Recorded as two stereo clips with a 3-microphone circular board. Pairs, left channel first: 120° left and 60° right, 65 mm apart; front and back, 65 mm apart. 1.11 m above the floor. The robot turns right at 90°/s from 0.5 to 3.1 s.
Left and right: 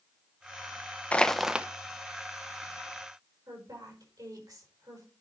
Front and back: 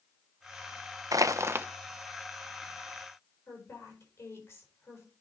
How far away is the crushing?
About 0.5 m.